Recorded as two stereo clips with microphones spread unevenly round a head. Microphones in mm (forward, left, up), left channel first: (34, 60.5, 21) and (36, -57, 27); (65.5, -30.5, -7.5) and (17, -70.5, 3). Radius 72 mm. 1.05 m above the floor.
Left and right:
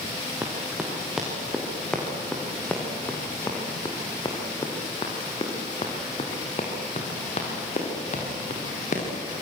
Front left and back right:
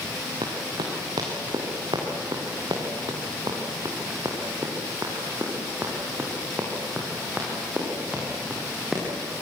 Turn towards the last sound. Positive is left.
turn(degrees=130)